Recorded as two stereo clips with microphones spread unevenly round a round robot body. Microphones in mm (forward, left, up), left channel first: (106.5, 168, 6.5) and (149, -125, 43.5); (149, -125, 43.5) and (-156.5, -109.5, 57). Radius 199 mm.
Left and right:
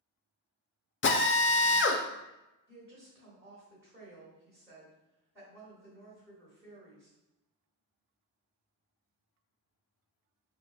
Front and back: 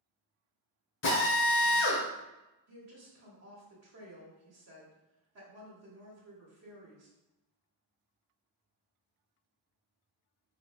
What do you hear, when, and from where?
1.0 s a drill: 50° left, 0.5 m
2.7 s a woman speaking: 165° right, 1.2 m